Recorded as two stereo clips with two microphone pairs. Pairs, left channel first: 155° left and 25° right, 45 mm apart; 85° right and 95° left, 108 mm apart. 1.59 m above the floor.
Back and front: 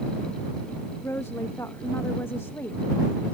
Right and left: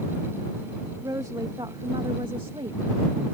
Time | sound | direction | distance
1.0 | a woman speaking | 155° left | ?